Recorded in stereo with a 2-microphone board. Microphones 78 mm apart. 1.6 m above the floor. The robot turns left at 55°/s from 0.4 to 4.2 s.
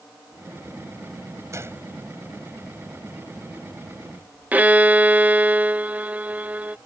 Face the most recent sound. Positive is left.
turn(degrees=-20)  # may be behind; listen again after turning